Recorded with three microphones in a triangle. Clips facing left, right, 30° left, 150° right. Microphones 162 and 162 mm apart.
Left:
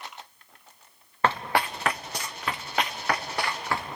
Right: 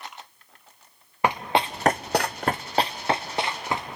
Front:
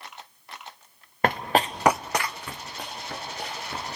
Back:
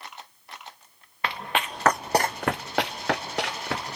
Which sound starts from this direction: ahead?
Running footsteps, at 1.2 s.